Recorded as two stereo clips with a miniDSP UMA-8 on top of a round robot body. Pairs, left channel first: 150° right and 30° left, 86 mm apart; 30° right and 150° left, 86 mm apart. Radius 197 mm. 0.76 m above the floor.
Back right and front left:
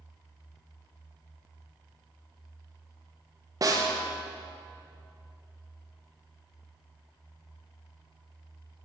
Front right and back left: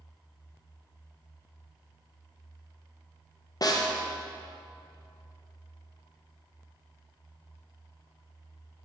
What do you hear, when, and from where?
3.6 s a snare drum: 5° right, 1.2 m